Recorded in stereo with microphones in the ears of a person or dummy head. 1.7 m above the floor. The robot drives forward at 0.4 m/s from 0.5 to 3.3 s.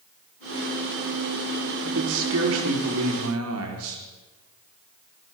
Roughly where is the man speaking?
Right.